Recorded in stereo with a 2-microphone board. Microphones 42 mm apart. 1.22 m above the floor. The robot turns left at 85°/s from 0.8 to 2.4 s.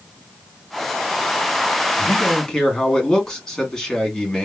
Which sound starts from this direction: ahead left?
A man speaking, at 2.0 s.